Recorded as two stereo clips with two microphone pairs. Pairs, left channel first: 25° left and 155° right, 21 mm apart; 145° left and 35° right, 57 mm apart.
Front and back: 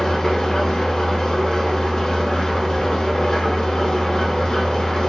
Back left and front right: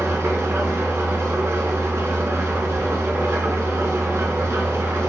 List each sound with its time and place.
0.0 s an engine running: 20° right, 0.8 m